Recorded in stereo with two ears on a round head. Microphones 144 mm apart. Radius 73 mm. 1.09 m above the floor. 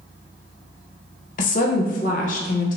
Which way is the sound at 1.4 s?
55° left (ahead or behind).